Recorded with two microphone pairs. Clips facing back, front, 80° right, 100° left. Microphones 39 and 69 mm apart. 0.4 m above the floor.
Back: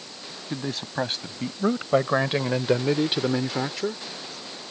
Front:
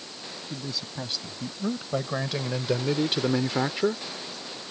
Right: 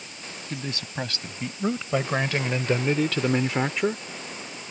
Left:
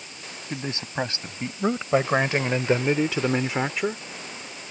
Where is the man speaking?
160° left; by 4.0 s 5° left.